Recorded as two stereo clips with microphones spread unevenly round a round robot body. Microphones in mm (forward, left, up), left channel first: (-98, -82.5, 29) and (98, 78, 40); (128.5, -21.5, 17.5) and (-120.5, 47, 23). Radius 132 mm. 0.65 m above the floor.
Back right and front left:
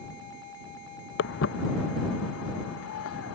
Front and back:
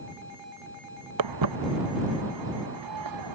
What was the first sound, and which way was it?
Footsteps, 170° left.